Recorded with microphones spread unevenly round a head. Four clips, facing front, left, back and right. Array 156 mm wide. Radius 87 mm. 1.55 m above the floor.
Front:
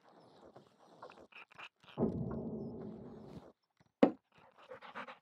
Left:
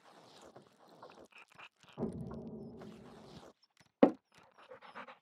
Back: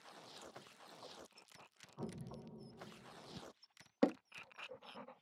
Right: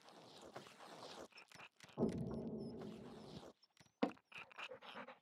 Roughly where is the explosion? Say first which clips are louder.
Even, front 12 dB; ahead right.